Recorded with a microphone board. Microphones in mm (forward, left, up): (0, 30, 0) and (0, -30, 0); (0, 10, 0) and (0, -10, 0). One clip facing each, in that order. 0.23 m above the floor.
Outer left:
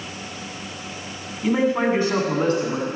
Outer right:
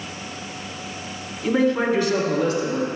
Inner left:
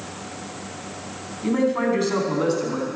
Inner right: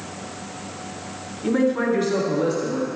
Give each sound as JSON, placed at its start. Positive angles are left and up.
{"t": 1.4, "sound": "a man speaking", "side_deg": 10, "distance_m": 1.4}